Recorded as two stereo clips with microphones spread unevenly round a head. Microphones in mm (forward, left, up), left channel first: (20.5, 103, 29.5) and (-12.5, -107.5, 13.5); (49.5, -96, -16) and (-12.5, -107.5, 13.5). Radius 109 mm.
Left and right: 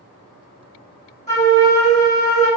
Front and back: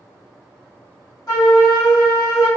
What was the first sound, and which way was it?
A flute, 20° left.